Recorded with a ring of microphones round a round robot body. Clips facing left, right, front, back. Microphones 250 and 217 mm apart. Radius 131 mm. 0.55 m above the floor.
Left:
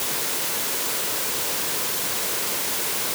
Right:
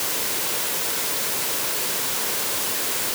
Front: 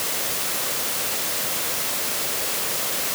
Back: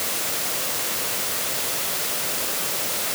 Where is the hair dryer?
I don't hear a hair dryer.